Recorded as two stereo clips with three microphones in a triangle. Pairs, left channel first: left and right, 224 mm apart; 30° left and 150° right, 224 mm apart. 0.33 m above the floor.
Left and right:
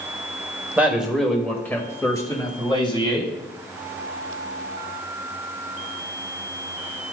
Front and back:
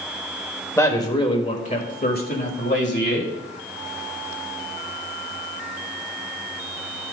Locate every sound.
0.8 s a man speaking: 25° right, 1.2 m; by 3.3 s 30° left, 2 m